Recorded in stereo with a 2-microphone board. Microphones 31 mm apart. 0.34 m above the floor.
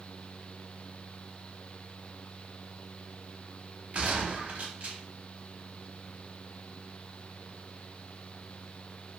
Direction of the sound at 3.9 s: 50° right (ahead or behind).